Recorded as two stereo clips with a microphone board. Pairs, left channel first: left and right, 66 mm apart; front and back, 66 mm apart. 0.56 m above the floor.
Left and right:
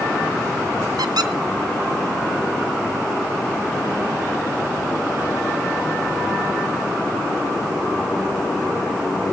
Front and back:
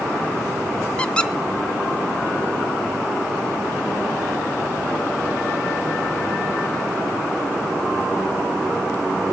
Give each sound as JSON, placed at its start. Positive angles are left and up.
{"t": 1.0, "sound": "a squeak", "azimuth_deg": -75, "distance_m": 0.6}